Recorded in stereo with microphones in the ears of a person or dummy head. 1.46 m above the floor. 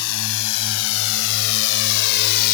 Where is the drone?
85° left; by 2.5 s 55° left (ahead or behind).